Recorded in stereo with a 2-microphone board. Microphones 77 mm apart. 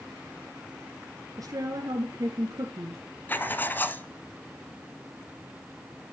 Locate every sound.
1.4 s a woman speaking: 50° right (ahead or behind), 1.6 m
3.3 s writing: 25° left (ahead or behind), 1.3 m